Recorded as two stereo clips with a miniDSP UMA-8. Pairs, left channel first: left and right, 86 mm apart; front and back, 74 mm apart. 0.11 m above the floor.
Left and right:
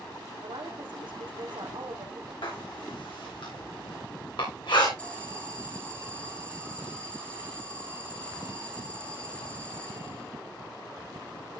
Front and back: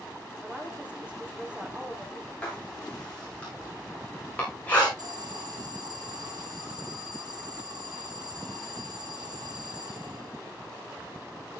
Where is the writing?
70° left, 8 m.